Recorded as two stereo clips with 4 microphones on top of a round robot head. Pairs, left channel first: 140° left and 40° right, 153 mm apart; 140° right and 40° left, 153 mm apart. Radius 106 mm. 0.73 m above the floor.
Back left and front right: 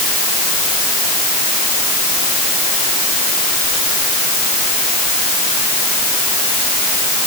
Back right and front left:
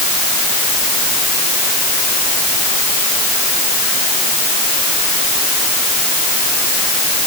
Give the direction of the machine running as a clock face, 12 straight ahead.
I don't hear a machine running.